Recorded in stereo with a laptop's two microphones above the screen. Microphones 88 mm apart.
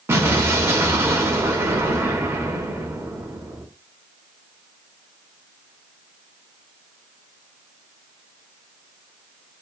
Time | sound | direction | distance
0.1 | an explosion | 30° right (ahead or behind) | 0.8 m